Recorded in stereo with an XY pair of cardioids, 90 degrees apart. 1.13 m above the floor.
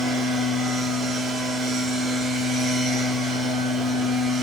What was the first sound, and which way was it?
A machine running, 70° right.